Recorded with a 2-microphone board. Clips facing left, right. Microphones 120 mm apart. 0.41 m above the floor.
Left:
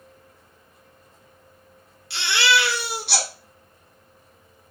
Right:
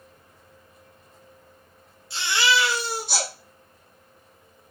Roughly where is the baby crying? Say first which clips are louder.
Left 1 dB; left.